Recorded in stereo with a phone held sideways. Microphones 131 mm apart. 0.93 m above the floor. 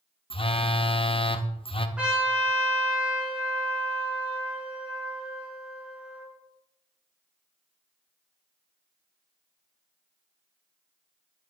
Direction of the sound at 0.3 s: 45° left (ahead or behind).